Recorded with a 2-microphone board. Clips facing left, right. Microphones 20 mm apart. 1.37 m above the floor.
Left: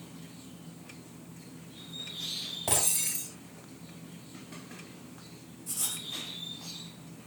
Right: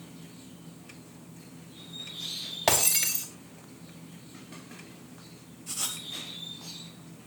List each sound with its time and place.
2.7 s breaking glass: 75° right (ahead or behind), 4 m
5.7 s writing: 35° right (ahead or behind), 3 m